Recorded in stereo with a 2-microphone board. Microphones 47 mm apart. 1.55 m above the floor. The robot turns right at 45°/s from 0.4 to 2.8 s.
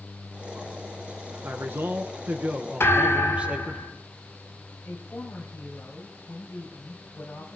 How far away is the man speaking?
About 0.8 m.